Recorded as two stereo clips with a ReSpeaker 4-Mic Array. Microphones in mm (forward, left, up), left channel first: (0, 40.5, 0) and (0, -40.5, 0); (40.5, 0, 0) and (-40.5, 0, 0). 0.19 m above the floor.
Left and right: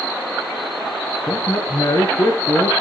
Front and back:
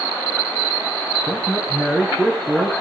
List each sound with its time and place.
1.3 s a man speaking: 105° left, 2.5 m